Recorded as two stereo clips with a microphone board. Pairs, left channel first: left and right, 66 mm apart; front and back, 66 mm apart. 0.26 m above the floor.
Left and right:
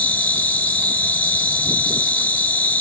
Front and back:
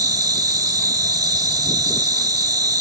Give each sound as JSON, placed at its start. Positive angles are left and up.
{"t": 0.0, "sound": "an insect", "azimuth_deg": 155, "distance_m": 0.8}